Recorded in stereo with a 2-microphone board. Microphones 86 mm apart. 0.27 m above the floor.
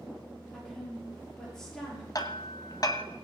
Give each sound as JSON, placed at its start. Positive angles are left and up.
{"t": 0.5, "sound": "a woman speaking", "side_deg": 5, "distance_m": 7.0}
{"t": 2.1, "sound": "hammering", "side_deg": 50, "distance_m": 1.1}